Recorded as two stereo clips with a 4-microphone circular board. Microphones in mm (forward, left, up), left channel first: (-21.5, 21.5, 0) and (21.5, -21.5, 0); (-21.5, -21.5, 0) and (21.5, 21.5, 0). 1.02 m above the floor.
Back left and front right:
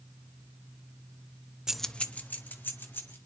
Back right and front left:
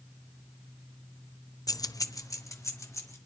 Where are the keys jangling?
125° right, 0.5 m; by 3.2 s 170° right, 2.5 m.